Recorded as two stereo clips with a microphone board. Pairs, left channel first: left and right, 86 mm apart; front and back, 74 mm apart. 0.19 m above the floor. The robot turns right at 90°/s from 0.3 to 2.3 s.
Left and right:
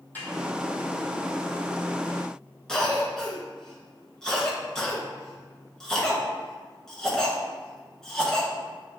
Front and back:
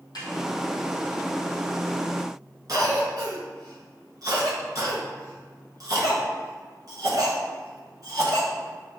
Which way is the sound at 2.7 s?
175° left.